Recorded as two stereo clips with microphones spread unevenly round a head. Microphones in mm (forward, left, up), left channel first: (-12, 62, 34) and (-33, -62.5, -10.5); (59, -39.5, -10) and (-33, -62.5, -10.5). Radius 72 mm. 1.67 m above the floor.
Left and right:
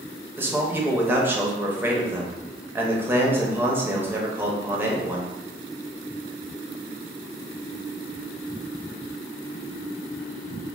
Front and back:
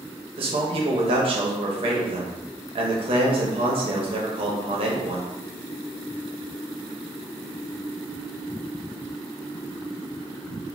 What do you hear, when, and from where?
0.4 s a man speaking: straight behind, 0.8 m